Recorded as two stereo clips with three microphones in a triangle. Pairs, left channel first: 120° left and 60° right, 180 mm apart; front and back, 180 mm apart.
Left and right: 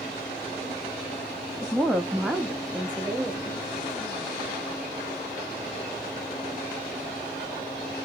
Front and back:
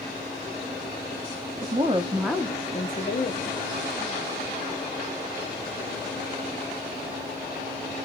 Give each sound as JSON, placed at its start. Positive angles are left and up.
{"t": 1.6, "sound": "a woman speaking", "azimuth_deg": -150, "distance_m": 0.9}